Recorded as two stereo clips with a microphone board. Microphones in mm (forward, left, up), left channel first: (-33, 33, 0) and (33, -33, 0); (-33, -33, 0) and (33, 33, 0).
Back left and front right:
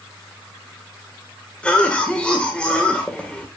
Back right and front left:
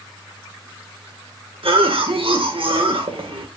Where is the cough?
55° left, 2 m.